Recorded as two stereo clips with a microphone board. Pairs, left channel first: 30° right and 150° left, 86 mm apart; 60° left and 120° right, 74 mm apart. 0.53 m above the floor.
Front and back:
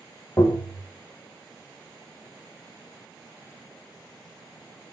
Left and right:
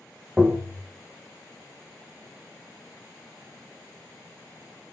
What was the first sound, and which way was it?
Tapping, 45° right.